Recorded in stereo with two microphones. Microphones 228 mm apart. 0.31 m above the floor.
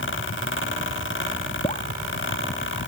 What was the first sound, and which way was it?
Dripping, 30° left (ahead or behind).